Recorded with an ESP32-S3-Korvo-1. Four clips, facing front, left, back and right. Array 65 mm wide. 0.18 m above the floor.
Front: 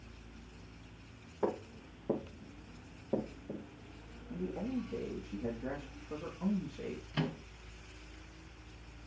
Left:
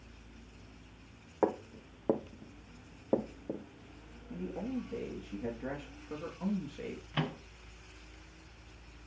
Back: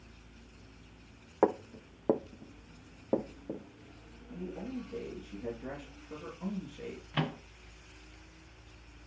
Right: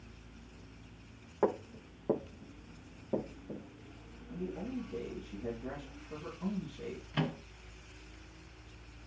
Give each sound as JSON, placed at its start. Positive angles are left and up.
{"t": 1.4, "sound": "footsteps", "azimuth_deg": 170, "distance_m": 1.5}
{"t": 4.3, "sound": "a man speaking", "azimuth_deg": 90, "distance_m": 3.0}
{"t": 7.1, "sound": "a microwave", "azimuth_deg": 160, "distance_m": 0.9}